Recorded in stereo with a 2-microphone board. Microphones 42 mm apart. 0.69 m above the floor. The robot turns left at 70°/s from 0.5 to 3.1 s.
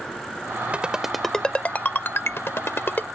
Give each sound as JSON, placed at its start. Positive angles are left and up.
{"t": 0.7, "sound": "a ringtone", "side_deg": -30}